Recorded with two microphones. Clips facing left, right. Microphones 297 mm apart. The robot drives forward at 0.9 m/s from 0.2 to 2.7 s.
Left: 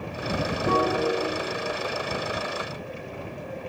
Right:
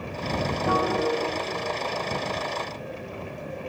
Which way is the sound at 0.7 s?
30° left (ahead or behind).